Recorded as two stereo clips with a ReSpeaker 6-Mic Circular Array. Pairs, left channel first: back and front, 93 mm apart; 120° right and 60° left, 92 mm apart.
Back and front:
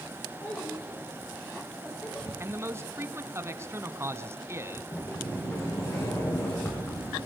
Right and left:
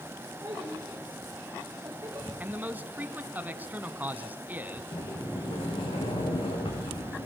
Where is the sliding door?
120° right, 7 m.